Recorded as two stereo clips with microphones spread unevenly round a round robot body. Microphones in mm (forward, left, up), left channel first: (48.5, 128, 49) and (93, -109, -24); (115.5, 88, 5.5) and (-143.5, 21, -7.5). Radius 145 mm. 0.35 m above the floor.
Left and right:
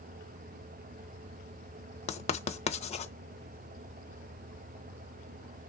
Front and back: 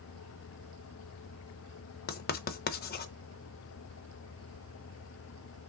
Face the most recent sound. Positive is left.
turn(degrees=30)